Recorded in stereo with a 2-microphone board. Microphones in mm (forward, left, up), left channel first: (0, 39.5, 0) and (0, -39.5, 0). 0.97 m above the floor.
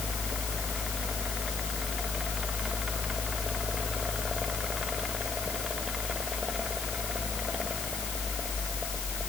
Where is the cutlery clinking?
I don't hear cutlery clinking.